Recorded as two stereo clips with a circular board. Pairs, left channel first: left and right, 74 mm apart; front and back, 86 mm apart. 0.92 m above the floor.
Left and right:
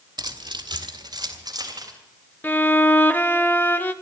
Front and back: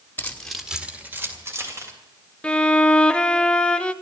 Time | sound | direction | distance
0.2 | keys jangling | 70° right | 1.5 m
2.4 | a violin | 65° left | 0.7 m